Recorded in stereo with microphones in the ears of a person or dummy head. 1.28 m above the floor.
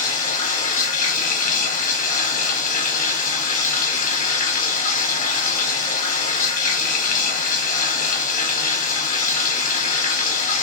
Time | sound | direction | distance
0.0 | running water | 50° left (ahead or behind) | 1.1 m